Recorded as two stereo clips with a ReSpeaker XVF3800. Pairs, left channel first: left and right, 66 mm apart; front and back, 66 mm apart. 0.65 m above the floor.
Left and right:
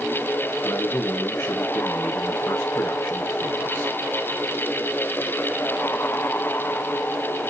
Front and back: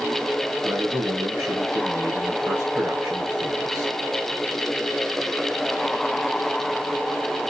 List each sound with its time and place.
0.6 s a man speaking: 130° left, 4.5 m